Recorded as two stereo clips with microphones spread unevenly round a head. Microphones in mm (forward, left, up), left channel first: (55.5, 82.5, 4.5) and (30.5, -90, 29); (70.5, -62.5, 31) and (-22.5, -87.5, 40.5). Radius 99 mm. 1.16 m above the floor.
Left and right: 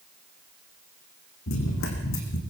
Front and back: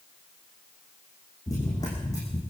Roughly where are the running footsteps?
Left.